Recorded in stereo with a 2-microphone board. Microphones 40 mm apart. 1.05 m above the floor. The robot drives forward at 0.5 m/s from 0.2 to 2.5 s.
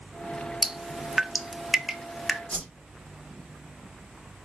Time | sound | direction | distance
0.6 | dripping | 10° right (ahead or behind) | 0.5 m
2.5 | a whoosh | 30° left (ahead or behind) | 3 m